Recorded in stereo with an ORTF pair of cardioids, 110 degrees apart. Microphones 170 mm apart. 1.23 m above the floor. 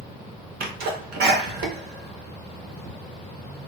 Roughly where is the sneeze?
Right.